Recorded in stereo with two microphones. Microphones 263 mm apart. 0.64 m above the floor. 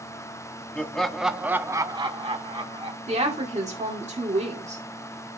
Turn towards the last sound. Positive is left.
turn(degrees=-25)  # may be behind; listen again after turning